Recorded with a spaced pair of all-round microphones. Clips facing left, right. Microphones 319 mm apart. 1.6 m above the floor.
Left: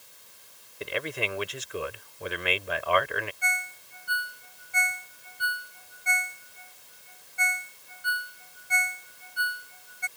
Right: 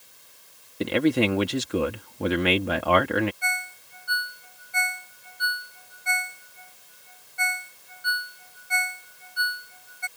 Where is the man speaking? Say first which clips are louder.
Right 13 dB; 80° right.